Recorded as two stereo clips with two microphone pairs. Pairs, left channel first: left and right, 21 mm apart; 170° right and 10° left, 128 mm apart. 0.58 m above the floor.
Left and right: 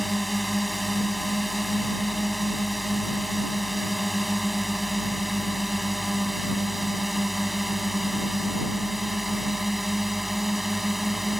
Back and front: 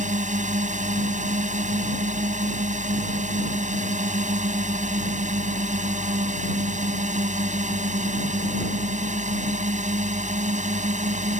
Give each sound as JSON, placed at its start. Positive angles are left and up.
{"t": 0.0, "sound": "a drone", "azimuth_deg": 5}